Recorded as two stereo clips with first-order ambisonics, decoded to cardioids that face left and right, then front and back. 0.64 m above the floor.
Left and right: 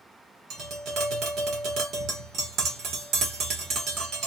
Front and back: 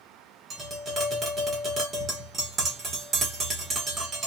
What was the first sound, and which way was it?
Tapping, 120° right.